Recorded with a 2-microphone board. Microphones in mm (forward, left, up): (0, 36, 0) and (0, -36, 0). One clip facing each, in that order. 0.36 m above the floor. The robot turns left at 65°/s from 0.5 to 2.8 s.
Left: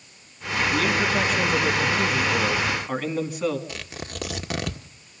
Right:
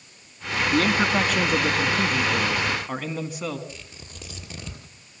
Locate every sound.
0.7 s a man speaking: 40° right, 2.5 m; by 3.6 s straight behind, 2.5 m
3.7 s tearing paper: 85° left, 1.5 m